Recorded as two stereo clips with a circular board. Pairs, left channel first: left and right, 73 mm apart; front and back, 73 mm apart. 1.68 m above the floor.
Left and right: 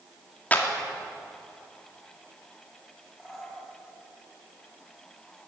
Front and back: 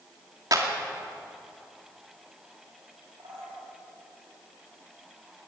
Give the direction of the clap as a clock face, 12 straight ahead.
7 o'clock.